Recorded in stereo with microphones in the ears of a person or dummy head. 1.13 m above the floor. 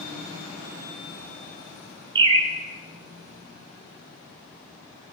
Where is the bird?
35° right (ahead or behind), 1.3 m.